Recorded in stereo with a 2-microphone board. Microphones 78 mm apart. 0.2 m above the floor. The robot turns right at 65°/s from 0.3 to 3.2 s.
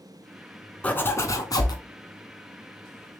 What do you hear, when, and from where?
0.8 s a zipper: 20° left, 0.7 m; by 1.8 s 80° left, 0.7 m